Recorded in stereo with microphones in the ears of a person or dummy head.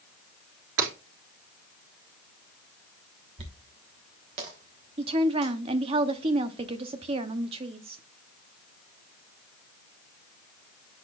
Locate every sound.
0.8 s breaking glass: 75° right (ahead or behind), 4.5 m
3.4 s a dropped coin: 30° right (ahead or behind), 1.0 m
5.0 s a woman speaking: 30° right (ahead or behind), 0.8 m